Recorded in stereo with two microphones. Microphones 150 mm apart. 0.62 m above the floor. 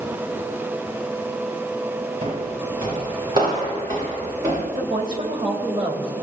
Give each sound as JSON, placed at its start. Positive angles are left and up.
{"t": 2.2, "sound": "footsteps", "side_deg": -45, "distance_m": 4.5}
{"t": 4.8, "sound": "a woman speaking", "side_deg": -35, "distance_m": 2.5}